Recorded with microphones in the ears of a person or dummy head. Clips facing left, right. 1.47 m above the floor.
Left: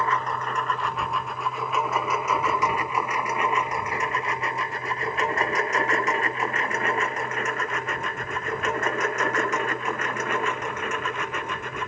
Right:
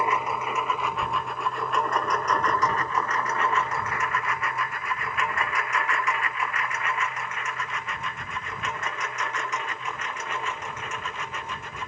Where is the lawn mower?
5° right (ahead or behind); by 11.9 s 50° left (ahead or behind).